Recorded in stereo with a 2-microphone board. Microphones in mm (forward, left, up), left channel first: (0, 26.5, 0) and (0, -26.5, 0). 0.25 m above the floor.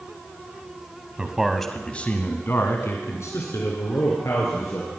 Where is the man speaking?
15° right (ahead or behind), 1.6 m; by 5.0 s 75° left (ahead or behind), 5 m.